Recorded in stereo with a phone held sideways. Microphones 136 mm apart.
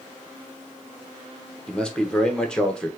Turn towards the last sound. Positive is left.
turn(degrees=5)  # may be behind; listen again after turning